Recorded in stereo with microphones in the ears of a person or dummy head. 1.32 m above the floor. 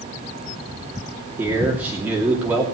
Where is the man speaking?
10° right (ahead or behind), 2.5 m.